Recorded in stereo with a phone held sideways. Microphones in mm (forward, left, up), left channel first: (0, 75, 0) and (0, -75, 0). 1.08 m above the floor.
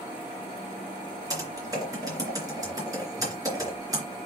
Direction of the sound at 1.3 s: 25° right (ahead or behind).